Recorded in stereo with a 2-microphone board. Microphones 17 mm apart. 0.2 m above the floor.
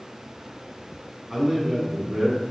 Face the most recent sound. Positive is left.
turn(degrees=-45)  # may be behind; listen again after turning